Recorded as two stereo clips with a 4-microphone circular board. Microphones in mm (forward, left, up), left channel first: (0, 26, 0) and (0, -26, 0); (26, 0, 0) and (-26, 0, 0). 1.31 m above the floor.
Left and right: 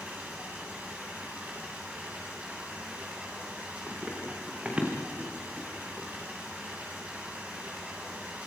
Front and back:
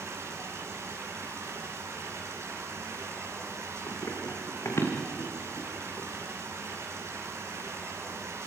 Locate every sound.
0.0 s running water: 155° right, 8 m
3.9 s running footsteps: 25° right, 5.5 m